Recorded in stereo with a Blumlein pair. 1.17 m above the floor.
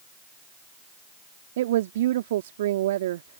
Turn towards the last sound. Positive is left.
turn(degrees=-55)